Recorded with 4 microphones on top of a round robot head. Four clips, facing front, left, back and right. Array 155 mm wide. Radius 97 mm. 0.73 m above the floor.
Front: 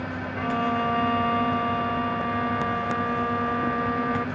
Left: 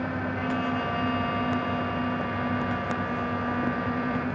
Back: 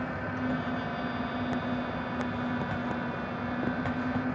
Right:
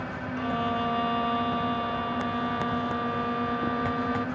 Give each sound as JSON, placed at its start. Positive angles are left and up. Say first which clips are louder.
{"t": 0.4, "sound": "a violin", "louder": "right 3 dB, front 8 dB", "azimuth_deg": -25}